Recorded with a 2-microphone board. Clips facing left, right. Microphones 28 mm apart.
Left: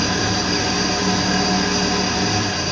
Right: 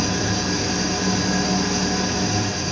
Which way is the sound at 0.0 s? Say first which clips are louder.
Left 3 dB; 80° left.